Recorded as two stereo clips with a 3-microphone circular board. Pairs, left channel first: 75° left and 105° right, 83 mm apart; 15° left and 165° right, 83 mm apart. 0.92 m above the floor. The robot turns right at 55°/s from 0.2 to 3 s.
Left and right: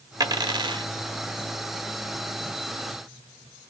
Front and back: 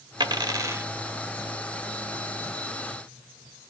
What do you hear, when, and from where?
0.2 s a dropped coin: 140° right, 1.0 m; by 0.9 s 100° right, 1.0 m